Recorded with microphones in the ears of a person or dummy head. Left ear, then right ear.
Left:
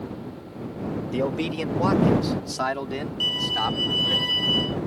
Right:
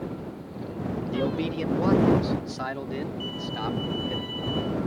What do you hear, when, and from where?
1.1 s a man speaking: 30° left (ahead or behind); by 4.2 s 45° left (ahead or behind)
3.2 s a violin: 60° left (ahead or behind)